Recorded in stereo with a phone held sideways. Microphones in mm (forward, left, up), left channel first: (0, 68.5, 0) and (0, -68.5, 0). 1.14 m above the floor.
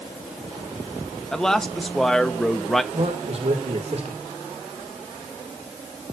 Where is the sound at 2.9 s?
45° right (ahead or behind), 3 m.